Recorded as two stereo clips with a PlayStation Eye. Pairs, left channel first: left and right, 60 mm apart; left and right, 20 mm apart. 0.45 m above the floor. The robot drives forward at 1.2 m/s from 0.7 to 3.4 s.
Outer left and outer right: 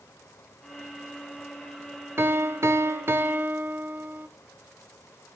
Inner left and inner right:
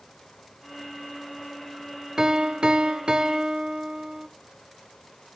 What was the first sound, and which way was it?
A piano, 40° right (ahead or behind).